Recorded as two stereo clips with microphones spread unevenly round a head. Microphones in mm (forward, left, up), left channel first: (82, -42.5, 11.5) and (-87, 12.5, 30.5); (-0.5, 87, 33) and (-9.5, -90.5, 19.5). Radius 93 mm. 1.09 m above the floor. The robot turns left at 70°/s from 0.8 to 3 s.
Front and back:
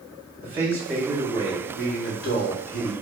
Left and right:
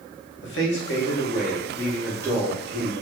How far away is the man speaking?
About 1.1 m.